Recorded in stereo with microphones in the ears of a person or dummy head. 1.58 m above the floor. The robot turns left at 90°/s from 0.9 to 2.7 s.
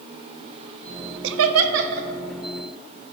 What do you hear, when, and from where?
1.2 s laughter: 65° right (ahead or behind), 0.5 m; by 2.1 s 35° right (ahead or behind), 0.5 m